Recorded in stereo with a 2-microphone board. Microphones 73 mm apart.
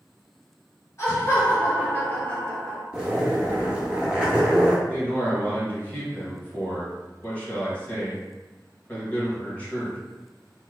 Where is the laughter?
40° left (ahead or behind), 1.8 m; by 2.8 s 5° left (ahead or behind), 1.7 m.